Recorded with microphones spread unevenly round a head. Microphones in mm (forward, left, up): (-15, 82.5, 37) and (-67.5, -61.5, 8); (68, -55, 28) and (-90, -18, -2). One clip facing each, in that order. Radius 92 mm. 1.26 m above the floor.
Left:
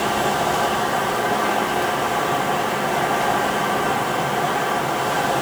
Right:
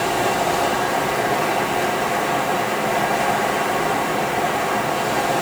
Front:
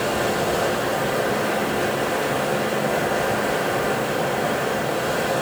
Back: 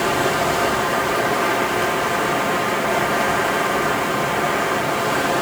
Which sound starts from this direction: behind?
Running water, at 0.0 s.